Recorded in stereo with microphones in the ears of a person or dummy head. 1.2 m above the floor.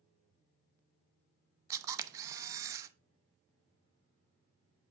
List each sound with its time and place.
1.7 s a camera shutter: 20° right (ahead or behind), 0.7 m